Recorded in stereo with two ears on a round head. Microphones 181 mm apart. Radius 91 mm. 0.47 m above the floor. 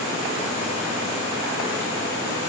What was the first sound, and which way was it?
Only background noise.